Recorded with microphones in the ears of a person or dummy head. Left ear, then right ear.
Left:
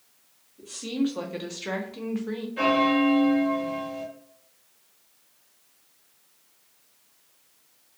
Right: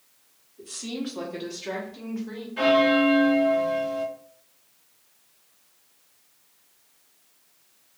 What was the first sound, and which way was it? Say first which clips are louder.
A woman speaking: left 4 dB; 5° left (ahead or behind).